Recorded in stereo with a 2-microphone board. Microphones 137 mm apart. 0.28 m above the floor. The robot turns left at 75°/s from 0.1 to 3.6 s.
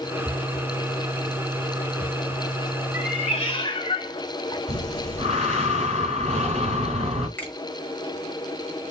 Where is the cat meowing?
95° left, 0.7 m; by 4.6 s 45° left, 0.7 m.